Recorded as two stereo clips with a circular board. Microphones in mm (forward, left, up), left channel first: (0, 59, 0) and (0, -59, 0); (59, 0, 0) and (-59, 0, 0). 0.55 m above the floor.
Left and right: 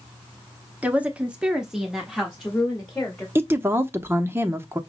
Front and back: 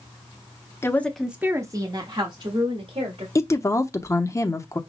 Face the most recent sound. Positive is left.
turn(degrees=-40)